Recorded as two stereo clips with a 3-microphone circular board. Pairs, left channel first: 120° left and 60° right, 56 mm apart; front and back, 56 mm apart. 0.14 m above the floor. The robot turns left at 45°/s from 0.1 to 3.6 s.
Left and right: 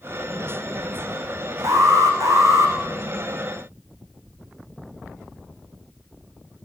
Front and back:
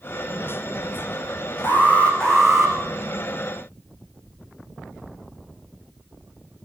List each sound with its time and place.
1.6 s an alarm: 50° right, 6.5 m; by 2.8 s 100° right, 6.5 m